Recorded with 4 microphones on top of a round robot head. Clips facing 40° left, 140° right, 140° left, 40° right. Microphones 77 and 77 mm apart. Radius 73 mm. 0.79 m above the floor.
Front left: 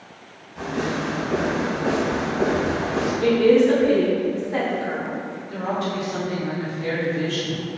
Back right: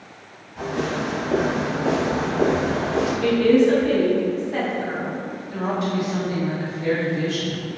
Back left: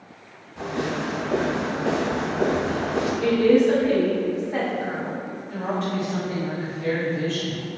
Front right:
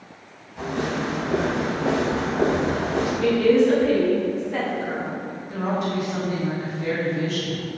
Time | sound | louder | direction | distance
0.6 | footsteps | even, front right 1 dB | 120° left | 0.8 m
3.2 | a woman speaking | front left 1 dB, even | 80° left | 1.1 m
5.5 | a woman speaking | back right 1 dB, front right 2 dB | 100° right | 1.0 m